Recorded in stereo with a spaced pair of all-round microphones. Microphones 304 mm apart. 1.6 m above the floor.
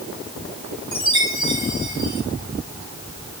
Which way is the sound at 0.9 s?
15° right (ahead or behind).